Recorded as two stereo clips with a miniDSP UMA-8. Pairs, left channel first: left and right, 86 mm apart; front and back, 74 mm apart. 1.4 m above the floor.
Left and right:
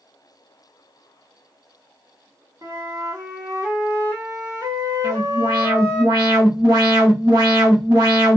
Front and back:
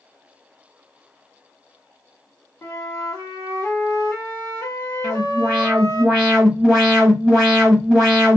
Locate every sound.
2.6 s a flute: 50° right, 1.4 m
5.0 s an alarm: 90° right, 1.4 m